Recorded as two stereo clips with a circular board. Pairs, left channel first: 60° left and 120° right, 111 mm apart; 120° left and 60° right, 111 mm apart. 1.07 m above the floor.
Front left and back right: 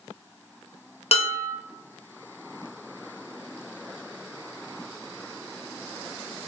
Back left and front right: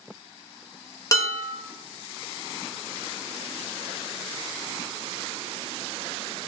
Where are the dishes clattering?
65° left, 0.5 m.